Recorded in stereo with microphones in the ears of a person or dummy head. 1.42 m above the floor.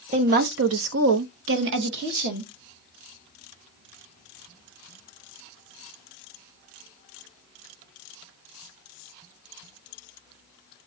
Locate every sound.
0.1 s a woman speaking: 35° right (ahead or behind), 0.8 m; by 2.5 s 50° right (ahead or behind), 1.5 m